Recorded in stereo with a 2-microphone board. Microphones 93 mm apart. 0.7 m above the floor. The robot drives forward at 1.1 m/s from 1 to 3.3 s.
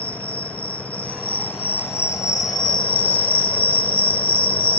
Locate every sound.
0.0 s an insect: 15° left (ahead or behind); by 4.8 s 65° left (ahead or behind)